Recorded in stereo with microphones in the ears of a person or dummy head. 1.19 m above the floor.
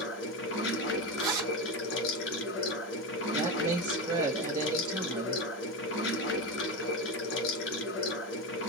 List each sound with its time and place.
0.0 s running water: 60° left (ahead or behind), 2 m
1.2 s a zipper: 20° right (ahead or behind), 1.7 m
3.3 s a woman speaking: 20° right (ahead or behind), 0.9 m